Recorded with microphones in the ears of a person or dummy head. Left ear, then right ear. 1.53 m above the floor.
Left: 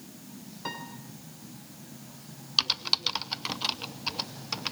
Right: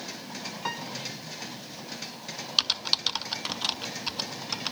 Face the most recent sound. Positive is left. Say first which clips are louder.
# right 1 dB
turn(degrees=-15)  # may be behind; listen again after turning